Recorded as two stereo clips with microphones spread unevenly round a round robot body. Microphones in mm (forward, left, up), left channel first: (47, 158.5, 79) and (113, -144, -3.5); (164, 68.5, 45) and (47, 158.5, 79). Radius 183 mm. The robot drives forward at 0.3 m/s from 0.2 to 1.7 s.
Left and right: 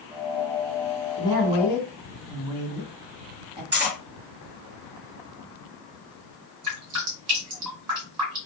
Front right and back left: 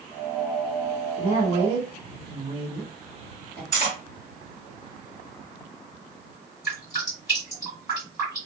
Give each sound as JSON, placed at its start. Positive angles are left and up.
{"t": 1.2, "sound": "a woman speaking", "azimuth_deg": -135, "distance_m": 1.8}
{"t": 3.7, "sound": "cutlery clinking", "azimuth_deg": -140, "distance_m": 1.2}
{"t": 6.6, "sound": "dripping", "azimuth_deg": -130, "distance_m": 1.8}